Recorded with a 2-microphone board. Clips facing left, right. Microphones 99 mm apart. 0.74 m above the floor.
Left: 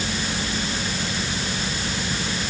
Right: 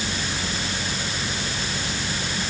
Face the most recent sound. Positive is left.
No sound to turn to.